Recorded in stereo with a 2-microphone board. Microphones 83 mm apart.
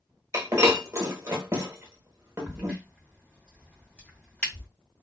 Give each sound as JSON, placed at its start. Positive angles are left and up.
{"t": 0.3, "sound": "breaking glass", "side_deg": -25, "distance_m": 0.9}
{"t": 2.5, "sound": "a crack", "side_deg": 15, "distance_m": 1.6}